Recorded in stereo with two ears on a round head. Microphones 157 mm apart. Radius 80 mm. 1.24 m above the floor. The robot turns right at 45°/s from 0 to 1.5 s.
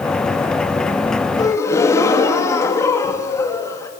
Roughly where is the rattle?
No rattle in this recording.